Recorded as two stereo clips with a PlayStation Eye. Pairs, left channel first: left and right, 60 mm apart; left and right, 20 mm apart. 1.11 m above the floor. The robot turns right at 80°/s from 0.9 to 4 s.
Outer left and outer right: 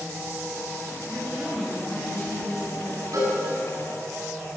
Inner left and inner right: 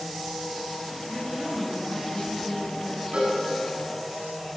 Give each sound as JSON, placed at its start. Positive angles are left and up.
{"t": 1.1, "sound": "a woman speaking", "azimuth_deg": -45, "distance_m": 6.0}
{"t": 3.1, "sound": "a cowbell", "side_deg": -75, "distance_m": 6.5}